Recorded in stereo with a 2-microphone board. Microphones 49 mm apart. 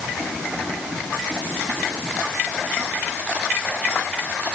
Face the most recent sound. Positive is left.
No sound to turn to.